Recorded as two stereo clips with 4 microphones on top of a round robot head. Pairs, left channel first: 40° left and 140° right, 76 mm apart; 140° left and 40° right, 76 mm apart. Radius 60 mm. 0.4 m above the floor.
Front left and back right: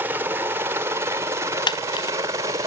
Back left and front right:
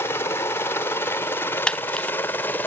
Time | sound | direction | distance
0.0 | a helicopter | 175° left | ?
1.7 | a camera shutter | 65° left | ?